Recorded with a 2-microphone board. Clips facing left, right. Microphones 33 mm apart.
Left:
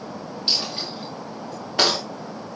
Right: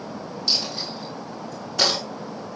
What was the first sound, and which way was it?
A dropped coin, 35° left (ahead or behind).